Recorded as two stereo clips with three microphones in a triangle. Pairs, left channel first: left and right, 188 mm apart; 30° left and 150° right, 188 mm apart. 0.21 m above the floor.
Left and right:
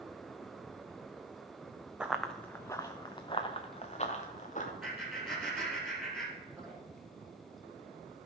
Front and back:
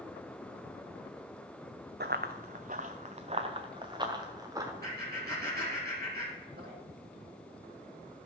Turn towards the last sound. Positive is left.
turn(degrees=-175)